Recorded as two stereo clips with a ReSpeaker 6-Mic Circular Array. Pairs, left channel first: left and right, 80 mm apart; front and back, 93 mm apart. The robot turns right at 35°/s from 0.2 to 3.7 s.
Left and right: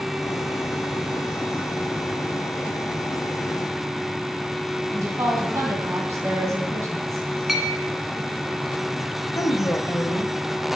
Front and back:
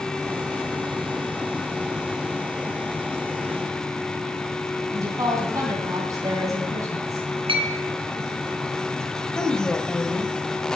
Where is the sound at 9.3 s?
65° left, 1.1 m.